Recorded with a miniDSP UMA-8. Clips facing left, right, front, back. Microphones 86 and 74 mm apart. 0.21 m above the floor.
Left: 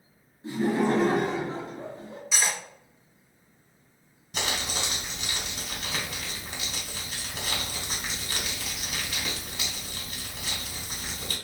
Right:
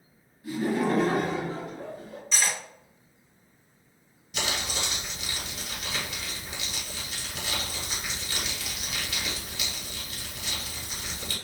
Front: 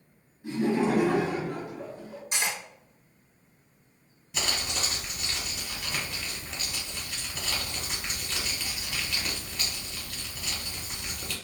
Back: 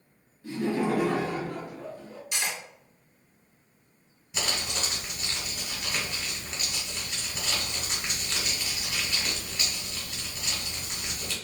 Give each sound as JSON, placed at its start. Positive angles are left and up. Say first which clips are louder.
{"t": 0.4, "sound": "laughter", "louder": "left 2 dB, front 2 dB", "azimuth_deg": 50, "distance_m": 1.1}
{"t": 2.3, "sound": "cutlery clinking", "louder": "even, front 2 dB", "azimuth_deg": 15, "distance_m": 0.9}
{"t": 4.3, "sound": "crumpling", "louder": "even, even", "azimuth_deg": 95, "distance_m": 1.4}